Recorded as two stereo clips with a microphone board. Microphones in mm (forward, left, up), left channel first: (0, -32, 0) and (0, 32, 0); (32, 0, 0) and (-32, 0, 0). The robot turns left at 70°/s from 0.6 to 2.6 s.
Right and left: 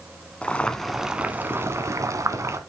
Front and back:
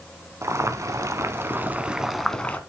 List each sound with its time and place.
0.4 s boiling: 160° right, 1.1 m; by 2.6 s 60° left, 1.1 m